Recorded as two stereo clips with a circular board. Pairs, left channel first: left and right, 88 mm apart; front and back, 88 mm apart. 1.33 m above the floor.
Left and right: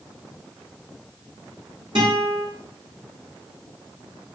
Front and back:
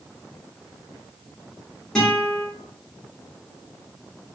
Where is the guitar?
80° right, 2 m.